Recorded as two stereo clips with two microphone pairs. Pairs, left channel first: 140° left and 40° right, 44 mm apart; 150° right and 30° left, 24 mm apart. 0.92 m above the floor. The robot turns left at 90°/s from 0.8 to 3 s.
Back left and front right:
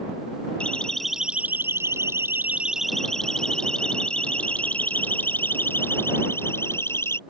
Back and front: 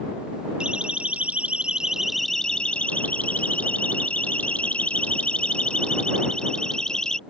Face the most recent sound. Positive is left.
turn(degrees=150)